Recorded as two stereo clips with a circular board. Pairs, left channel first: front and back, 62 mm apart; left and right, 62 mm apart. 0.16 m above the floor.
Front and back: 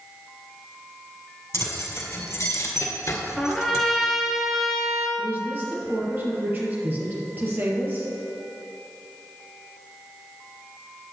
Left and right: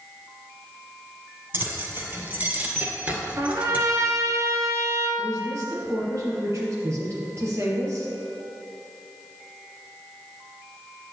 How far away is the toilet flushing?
No toilet flushing in this recording.